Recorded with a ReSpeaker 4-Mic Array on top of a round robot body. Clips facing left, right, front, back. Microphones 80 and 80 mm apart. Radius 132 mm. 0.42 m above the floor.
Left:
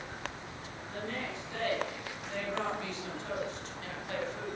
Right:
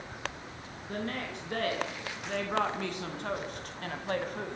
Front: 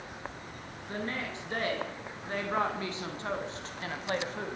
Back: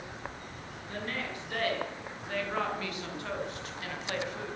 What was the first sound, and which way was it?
A woman speaking, 65° right.